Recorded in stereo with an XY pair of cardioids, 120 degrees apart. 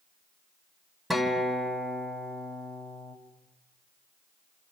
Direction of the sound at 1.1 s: 5° left.